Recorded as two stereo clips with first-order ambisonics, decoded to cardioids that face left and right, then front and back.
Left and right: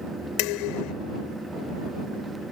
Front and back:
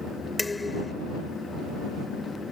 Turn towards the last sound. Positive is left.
turn(degrees=80)